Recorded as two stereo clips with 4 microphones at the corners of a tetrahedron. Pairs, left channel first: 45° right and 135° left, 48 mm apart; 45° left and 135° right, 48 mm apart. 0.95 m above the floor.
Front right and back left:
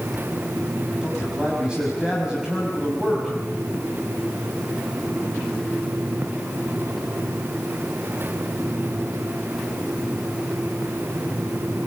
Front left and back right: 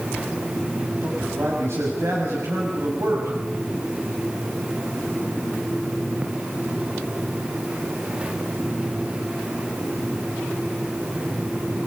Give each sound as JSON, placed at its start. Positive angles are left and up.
{"t": 1.0, "sound": "a man speaking", "azimuth_deg": -150, "distance_m": 6.5}